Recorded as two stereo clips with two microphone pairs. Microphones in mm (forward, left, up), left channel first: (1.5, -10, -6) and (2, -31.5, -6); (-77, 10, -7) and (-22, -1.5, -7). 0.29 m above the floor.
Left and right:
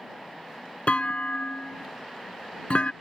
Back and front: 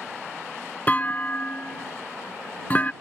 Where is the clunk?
115° left.